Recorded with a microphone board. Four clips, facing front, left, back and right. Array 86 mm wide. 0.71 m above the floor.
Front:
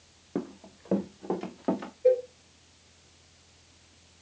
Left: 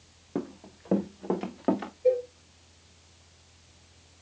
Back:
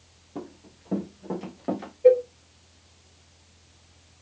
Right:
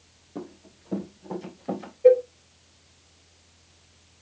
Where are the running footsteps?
45° left, 2 m; by 1.9 s 90° left, 3 m.